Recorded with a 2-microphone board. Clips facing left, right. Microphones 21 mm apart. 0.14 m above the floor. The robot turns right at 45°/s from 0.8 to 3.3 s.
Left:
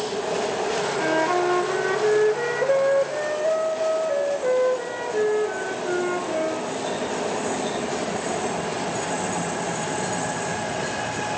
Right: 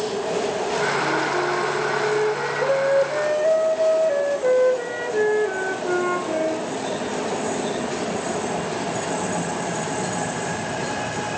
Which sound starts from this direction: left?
A flute, at 1.0 s.